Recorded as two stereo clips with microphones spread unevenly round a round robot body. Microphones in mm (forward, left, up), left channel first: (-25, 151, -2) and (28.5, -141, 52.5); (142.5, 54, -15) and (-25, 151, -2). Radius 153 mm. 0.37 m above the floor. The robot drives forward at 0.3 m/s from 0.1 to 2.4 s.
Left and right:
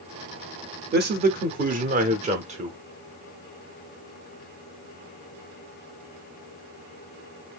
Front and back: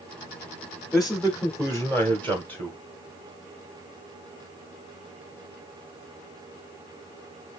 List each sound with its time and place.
0.9 s a man speaking: 105° right, 0.8 m; by 2.8 s 150° right, 1.0 m